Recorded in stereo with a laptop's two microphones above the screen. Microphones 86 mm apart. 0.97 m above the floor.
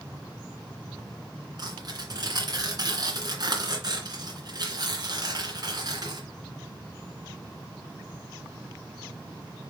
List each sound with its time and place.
1.6 s tearing paper: 50° right (ahead or behind), 2.5 m